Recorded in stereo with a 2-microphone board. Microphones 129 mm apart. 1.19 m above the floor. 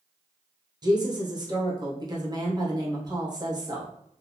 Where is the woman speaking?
30° right (ahead or behind), 0.9 m.